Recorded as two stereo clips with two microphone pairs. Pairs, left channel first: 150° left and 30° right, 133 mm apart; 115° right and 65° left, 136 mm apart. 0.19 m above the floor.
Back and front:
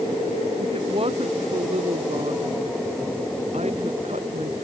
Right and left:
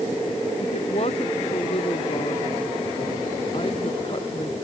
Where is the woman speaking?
75° right; by 4.6 s 60° right.